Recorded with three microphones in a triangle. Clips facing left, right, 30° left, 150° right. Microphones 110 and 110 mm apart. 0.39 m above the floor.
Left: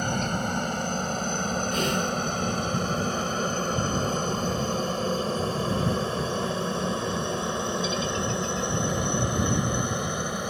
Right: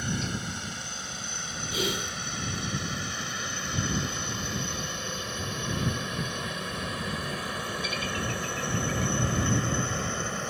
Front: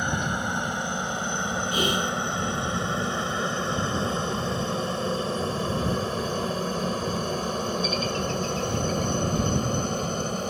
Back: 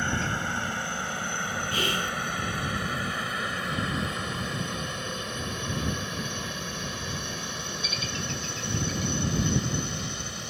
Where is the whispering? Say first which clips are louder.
Left 2 dB, front 5 dB; 15° right.